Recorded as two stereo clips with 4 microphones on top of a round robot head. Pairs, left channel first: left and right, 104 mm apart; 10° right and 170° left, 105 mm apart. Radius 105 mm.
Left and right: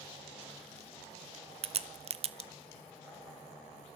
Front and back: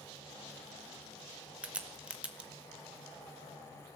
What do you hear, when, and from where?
1.6 s a crack: 110° right, 1.1 m